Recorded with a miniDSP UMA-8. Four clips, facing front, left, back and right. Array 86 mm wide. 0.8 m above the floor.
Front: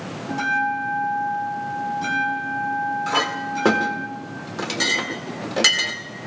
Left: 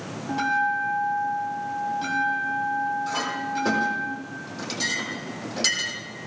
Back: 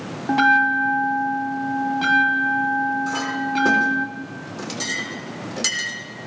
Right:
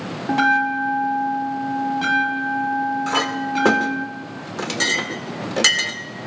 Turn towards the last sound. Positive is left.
turn(degrees=-55)